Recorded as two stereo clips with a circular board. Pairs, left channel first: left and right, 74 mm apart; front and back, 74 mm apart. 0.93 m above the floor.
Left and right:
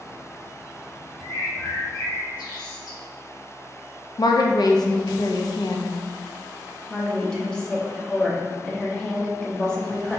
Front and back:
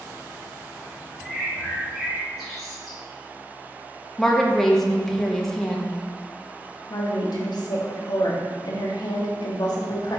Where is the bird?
90° left, 1.8 m.